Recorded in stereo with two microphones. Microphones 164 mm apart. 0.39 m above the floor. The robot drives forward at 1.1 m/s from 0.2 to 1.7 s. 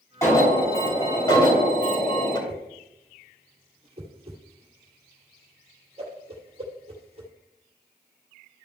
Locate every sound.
0.2 s an alarm: 20° left (ahead or behind), 4 m; by 2.4 s 25° left (ahead or behind), 2.5 m
2.5 s a whoosh: 35° right (ahead or behind), 2.5 m